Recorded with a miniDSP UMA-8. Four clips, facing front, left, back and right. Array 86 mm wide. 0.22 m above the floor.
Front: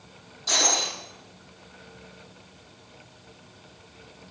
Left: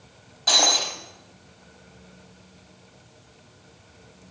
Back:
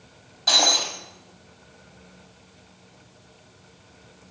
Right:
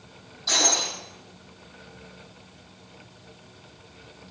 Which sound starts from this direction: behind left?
Breaking glass, at 0.5 s.